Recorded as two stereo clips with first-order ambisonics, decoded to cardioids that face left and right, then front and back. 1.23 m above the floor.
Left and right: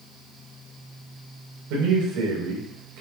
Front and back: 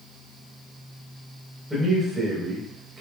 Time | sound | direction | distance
1.7 | a man speaking | 95° right | 4.5 m